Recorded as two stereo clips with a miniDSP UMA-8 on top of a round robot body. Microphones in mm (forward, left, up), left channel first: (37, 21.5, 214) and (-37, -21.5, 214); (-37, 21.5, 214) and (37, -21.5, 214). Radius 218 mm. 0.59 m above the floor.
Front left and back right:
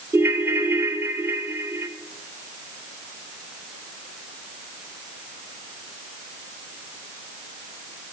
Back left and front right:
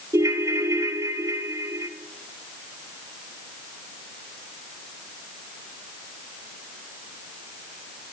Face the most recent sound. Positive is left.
turn(degrees=-85)